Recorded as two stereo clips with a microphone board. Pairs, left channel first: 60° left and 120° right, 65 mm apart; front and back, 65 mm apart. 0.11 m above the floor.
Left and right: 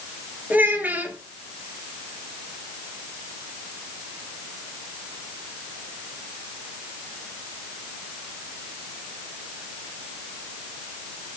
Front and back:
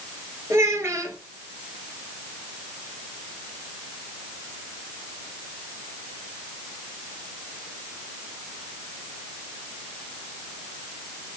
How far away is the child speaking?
About 1.8 m.